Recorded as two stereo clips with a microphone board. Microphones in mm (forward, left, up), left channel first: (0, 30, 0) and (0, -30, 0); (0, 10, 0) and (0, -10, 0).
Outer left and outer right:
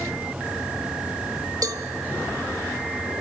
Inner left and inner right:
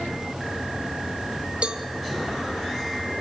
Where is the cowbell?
80° right, 1.0 m.